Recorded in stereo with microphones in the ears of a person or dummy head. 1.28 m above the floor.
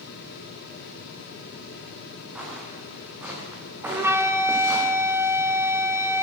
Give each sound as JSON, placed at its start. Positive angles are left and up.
{"t": 2.4, "sound": "footsteps", "side_deg": -10, "distance_m": 7.0}
{"t": 3.9, "sound": "a flute", "side_deg": -10, "distance_m": 1.8}